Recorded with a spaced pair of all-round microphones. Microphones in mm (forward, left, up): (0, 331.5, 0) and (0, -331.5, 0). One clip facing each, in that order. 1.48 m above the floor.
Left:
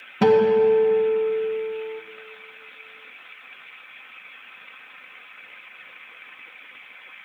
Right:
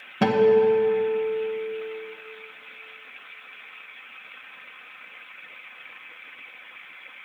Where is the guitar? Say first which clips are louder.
Left 2 dB; centre (ahead or behind), 0.7 m.